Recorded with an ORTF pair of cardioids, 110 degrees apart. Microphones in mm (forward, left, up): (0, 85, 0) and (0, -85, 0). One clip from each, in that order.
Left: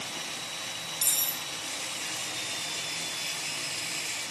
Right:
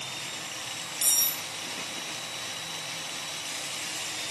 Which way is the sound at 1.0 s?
5° right.